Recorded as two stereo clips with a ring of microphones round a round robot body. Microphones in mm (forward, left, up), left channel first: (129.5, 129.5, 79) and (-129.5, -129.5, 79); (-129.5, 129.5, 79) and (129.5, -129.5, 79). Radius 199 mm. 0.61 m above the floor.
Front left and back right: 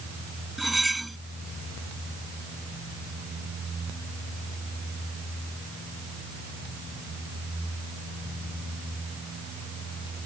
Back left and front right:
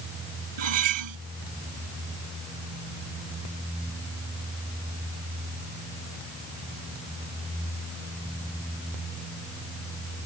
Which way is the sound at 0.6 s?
45° right.